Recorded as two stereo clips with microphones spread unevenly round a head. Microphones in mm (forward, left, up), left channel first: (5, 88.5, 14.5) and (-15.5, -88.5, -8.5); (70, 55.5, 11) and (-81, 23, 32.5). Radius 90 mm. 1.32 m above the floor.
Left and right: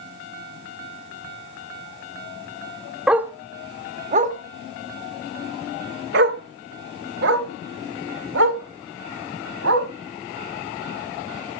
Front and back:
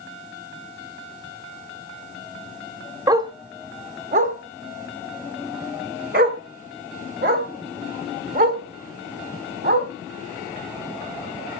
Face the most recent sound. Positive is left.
turn(degrees=-120)